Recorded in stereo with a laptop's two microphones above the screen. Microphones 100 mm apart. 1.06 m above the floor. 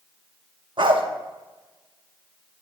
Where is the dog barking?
50° right (ahead or behind), 0.8 m.